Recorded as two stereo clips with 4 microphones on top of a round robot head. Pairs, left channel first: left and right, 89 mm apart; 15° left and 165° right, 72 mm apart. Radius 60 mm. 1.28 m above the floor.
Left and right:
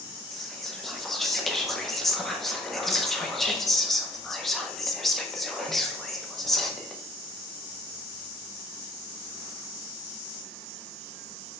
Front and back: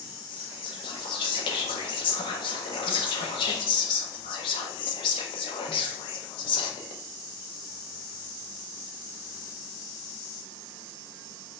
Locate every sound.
0.3 s whispering: straight ahead, 0.9 m